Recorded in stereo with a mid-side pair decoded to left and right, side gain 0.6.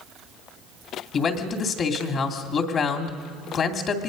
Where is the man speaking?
45° left, 2.5 m.